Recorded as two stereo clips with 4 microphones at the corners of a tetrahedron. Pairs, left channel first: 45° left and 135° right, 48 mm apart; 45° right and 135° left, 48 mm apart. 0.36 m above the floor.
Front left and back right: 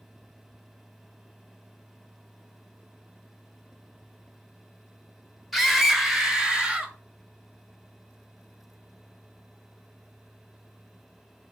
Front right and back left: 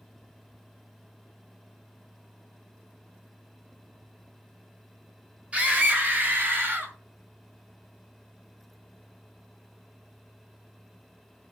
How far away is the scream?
About 1.4 m.